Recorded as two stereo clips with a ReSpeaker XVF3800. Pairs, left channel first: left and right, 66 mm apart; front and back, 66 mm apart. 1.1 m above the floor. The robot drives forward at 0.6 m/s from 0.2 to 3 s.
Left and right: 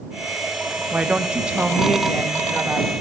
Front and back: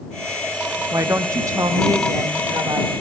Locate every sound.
0.9 s a woman speaking: 155° right, 0.9 m; by 2.9 s 170° right, 1.9 m